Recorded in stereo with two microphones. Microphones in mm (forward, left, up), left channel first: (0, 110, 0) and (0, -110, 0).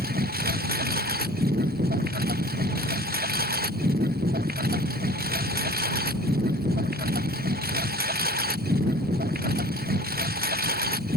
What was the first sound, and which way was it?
A lawn mower, 45° right (ahead or behind).